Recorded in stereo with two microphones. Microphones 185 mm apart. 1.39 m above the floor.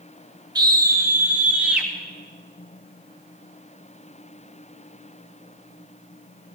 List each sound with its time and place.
0.6 s a scream: 25° right (ahead or behind), 1.5 m; by 1.9 s 5° right (ahead or behind), 2.5 m